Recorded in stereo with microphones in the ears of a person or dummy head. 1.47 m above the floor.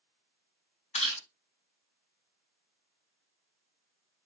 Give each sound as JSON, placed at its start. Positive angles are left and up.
{"t": 0.9, "sound": "chewing", "side_deg": 30, "distance_m": 2.5}